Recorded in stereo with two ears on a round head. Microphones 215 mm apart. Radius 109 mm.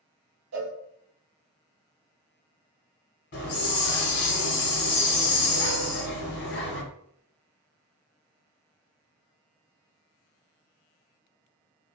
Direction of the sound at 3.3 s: 45° left (ahead or behind).